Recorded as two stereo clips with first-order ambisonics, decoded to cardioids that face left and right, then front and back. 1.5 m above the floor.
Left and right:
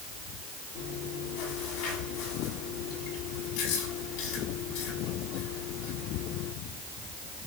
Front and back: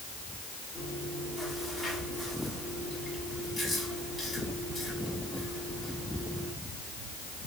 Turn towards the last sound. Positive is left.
turn(degrees=85)